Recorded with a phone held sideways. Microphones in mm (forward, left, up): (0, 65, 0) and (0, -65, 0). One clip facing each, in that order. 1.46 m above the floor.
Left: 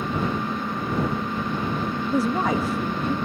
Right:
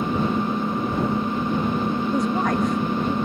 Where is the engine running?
25° right (ahead or behind).